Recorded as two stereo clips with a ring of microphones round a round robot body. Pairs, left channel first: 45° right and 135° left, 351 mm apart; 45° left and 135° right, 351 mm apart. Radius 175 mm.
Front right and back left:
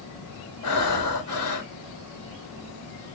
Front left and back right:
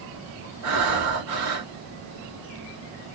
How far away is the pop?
No pop in this recording.